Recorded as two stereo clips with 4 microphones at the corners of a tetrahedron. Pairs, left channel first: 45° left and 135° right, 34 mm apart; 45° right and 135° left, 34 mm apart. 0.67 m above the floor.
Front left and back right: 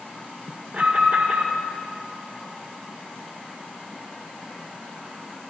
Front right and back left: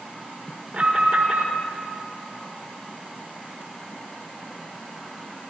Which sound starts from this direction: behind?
An alarm, at 0.7 s.